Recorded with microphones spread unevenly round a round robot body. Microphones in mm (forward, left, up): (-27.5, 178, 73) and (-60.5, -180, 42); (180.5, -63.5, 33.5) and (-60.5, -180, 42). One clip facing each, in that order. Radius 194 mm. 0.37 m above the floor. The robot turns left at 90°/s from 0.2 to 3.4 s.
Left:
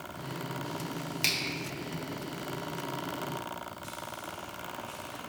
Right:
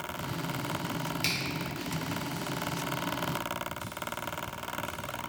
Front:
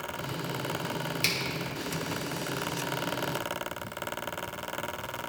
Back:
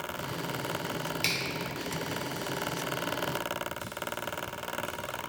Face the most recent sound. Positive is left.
turn(degrees=155)